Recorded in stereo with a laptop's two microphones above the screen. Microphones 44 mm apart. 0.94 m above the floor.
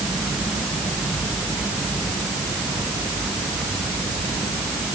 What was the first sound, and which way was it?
Only background noise.